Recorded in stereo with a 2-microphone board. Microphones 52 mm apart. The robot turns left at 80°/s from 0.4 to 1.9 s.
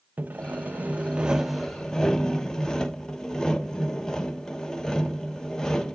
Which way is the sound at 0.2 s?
85° right.